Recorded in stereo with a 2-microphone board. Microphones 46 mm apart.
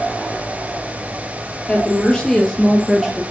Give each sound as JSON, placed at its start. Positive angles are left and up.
{"t": 1.7, "sound": "a woman speaking", "side_deg": 25, "distance_m": 3.0}